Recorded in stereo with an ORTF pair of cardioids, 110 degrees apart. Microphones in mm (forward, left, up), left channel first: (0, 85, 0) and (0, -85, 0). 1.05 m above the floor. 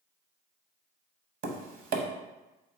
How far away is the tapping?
About 0.8 m.